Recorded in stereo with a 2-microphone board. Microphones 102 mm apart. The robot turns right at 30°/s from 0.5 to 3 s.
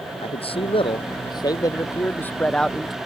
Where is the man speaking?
110° left; by 3.0 s 175° right.